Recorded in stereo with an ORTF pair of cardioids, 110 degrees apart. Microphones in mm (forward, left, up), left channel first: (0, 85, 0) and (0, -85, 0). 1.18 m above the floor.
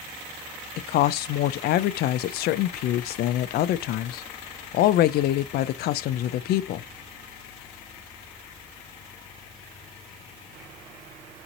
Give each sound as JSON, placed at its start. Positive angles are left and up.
{"t": 0.8, "sound": "a woman speaking", "azimuth_deg": 65, "distance_m": 0.6}